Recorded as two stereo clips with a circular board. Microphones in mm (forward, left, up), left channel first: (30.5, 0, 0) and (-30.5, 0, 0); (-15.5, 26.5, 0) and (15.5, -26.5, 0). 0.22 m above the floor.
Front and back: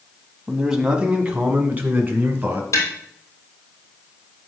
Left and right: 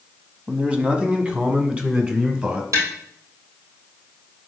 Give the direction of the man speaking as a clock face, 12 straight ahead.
4 o'clock.